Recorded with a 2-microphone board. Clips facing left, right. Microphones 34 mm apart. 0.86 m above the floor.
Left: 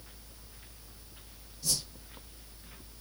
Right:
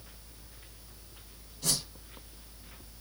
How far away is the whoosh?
About 4 m.